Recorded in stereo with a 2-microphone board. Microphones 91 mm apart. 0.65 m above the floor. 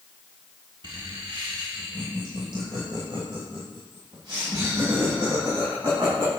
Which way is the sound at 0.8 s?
55° right (ahead or behind).